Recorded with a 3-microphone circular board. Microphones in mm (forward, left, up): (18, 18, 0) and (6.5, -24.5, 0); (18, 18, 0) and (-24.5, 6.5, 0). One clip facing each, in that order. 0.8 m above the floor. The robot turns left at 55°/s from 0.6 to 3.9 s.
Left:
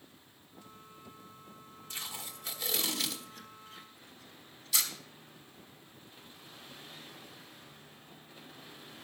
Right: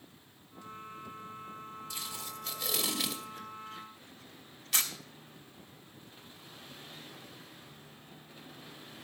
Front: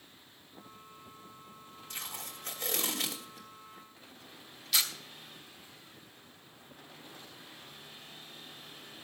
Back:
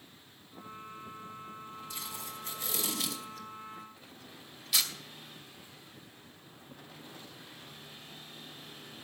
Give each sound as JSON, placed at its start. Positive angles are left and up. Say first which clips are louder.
{"t": 1.9, "sound": "tape being pulled", "louder": "left 2 dB, front 2 dB", "azimuth_deg": 25, "distance_m": 2.5}